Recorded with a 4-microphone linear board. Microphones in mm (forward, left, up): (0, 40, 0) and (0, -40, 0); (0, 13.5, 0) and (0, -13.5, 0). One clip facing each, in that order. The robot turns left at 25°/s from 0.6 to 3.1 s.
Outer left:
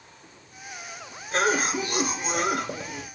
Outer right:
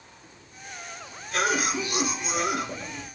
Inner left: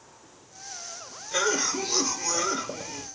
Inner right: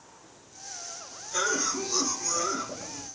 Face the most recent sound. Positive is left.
turn(degrees=70)